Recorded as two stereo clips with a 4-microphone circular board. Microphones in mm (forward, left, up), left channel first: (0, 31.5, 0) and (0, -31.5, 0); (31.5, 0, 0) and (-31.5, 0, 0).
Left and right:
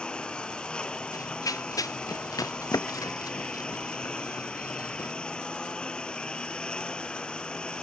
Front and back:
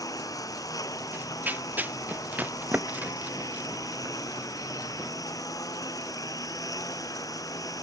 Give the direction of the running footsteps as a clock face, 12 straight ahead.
8 o'clock.